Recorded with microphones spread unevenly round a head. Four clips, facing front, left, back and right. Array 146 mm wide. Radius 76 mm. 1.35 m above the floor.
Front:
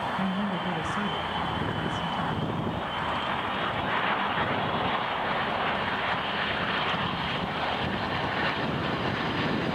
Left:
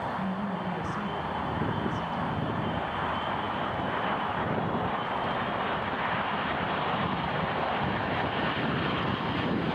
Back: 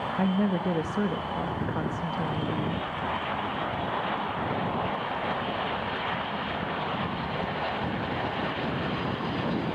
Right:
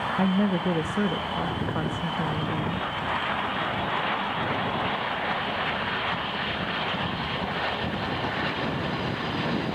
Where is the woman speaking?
125° right, 1.7 m.